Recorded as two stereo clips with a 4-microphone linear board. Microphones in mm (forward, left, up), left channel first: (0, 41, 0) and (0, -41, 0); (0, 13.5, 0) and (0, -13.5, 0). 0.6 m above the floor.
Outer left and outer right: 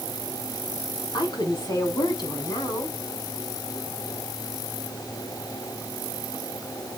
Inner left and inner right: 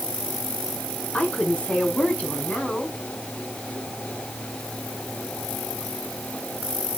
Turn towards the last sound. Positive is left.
turn(degrees=55)  # may be behind; listen again after turning